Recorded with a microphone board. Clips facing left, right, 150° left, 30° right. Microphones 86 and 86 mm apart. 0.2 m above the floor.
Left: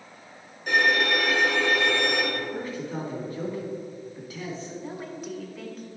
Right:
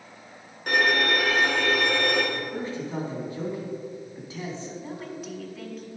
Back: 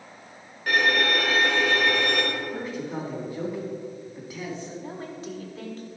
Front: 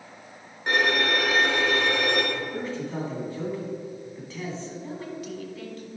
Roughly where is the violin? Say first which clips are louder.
Even, back 1 dB; right.